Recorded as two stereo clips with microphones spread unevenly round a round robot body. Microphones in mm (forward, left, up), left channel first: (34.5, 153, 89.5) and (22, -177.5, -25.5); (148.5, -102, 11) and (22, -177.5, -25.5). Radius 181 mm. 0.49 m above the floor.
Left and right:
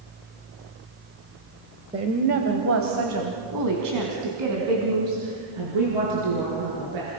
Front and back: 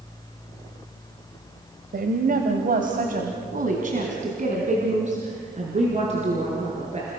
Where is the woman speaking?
160° right, 1.7 m; by 7.1 s 105° right, 6.5 m.